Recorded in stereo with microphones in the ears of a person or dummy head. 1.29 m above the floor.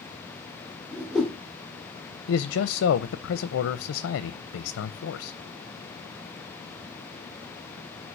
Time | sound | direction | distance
0.9 | a whoosh | 5° right (ahead or behind) | 1.1 m
2.3 | a man speaking | 65° left (ahead or behind) | 0.6 m